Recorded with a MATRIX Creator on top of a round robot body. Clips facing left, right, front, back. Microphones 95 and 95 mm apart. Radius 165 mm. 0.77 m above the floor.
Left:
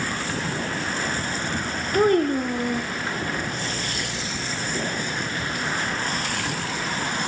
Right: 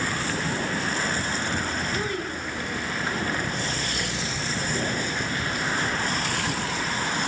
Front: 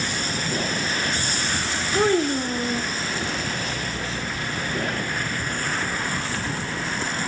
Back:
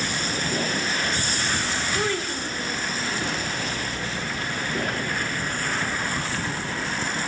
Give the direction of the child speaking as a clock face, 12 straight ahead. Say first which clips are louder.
Left 11 dB, front 11 dB; 10 o'clock.